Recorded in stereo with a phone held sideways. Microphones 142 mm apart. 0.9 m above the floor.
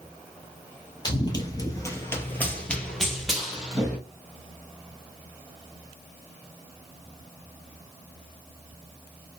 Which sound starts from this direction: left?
Running footsteps, at 1.1 s.